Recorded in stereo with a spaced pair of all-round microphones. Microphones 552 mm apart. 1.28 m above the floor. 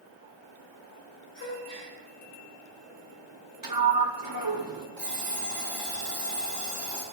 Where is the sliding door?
40° right (ahead or behind), 0.8 m.